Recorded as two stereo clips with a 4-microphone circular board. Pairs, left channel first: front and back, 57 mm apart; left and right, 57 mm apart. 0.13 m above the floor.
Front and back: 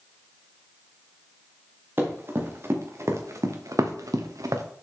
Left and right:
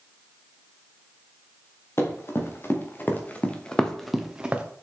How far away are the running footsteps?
About 2.5 m.